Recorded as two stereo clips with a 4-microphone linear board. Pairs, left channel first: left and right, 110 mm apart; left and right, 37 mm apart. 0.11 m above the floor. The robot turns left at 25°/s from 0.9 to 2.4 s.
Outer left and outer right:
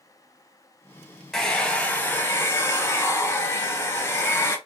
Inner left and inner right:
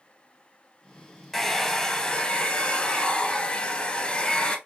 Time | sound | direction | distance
1.3 | a hair dryer | 5° left (ahead or behind) | 0.8 m